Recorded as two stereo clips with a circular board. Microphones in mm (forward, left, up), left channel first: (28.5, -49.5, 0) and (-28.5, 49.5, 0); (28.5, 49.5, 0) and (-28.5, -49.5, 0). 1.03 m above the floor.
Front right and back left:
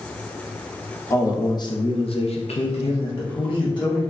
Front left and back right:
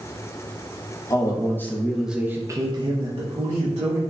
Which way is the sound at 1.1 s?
5° left.